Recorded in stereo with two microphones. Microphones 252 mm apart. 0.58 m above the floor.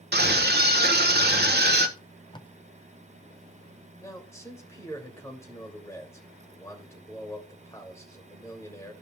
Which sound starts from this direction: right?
A scream, at 0.1 s.